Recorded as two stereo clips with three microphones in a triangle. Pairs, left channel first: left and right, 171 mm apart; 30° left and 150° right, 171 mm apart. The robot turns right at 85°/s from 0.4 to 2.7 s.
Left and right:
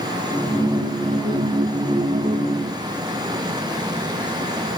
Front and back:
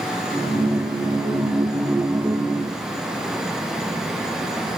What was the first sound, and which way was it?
Only background noise.